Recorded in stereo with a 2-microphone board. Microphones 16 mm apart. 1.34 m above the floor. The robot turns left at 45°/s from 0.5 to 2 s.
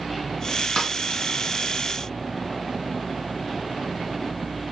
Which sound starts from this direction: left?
A snare drum, at 0.8 s.